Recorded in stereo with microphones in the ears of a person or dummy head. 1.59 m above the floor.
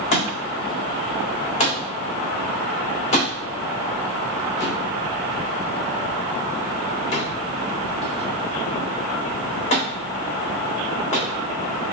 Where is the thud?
40° left (ahead or behind), 1.5 m.